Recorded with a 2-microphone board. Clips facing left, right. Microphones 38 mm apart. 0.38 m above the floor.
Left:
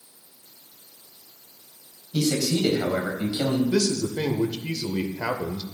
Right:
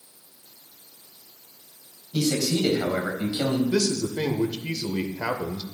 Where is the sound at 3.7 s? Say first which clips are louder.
Left 1 dB; 15° right (ahead or behind), 0.9 m.